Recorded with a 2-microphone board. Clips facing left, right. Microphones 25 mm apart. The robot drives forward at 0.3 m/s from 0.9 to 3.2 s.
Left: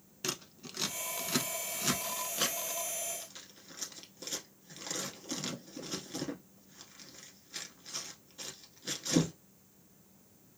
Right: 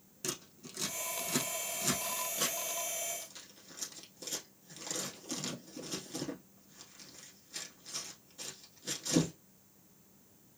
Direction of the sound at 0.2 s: 30° left (ahead or behind).